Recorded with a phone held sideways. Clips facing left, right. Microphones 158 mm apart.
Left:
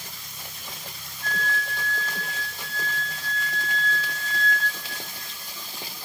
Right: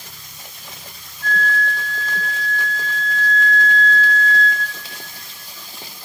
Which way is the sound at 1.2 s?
10° left (ahead or behind).